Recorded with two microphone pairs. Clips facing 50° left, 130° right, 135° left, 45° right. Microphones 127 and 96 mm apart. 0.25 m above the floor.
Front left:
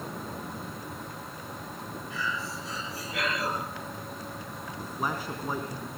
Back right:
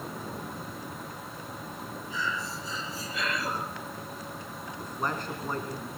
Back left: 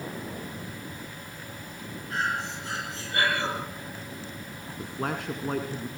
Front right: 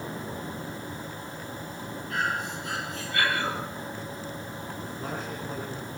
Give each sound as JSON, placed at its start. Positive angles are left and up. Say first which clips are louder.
{"t": 2.1, "sound": "breathing", "louder": "back right 1 dB, even", "azimuth_deg": 75, "distance_m": 8.0}
{"t": 4.8, "sound": "a man speaking", "louder": "even, back left 5 dB", "azimuth_deg": 135, "distance_m": 2.5}